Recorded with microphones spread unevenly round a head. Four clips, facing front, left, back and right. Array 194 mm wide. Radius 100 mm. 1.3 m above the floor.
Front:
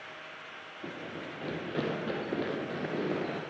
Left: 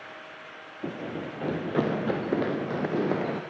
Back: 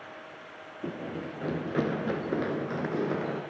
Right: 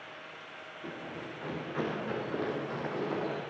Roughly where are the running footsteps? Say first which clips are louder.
Left 8 dB, back 5 dB; behind left.